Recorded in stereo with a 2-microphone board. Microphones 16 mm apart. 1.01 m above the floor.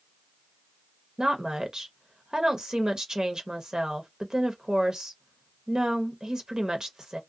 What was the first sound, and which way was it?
A woman speaking, 55° right (ahead or behind).